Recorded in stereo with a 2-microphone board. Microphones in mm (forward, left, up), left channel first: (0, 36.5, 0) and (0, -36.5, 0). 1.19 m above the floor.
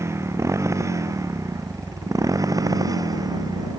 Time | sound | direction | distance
0.0 | a motorcycle | 40° right (ahead or behind) | ?